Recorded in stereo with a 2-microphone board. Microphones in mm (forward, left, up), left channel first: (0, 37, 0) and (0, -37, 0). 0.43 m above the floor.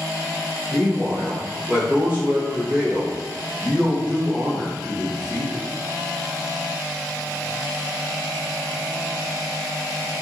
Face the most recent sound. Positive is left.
turn(degrees=-20)  # may be behind; listen again after turning